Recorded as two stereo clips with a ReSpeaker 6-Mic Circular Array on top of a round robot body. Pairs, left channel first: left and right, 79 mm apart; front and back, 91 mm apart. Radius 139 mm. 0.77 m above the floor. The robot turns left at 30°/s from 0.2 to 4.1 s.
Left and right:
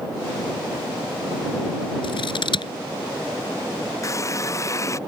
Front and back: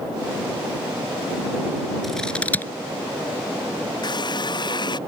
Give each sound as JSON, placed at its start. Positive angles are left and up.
{"t": 2.0, "sound": "scissors", "azimuth_deg": 90}
{"t": 4.0, "sound": "a running tap", "azimuth_deg": 40}